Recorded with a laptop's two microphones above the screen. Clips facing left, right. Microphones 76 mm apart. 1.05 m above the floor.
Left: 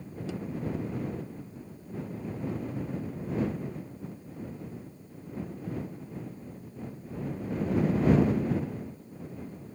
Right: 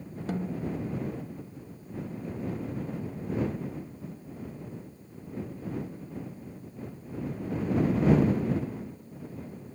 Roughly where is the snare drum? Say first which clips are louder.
Right 2 dB; right.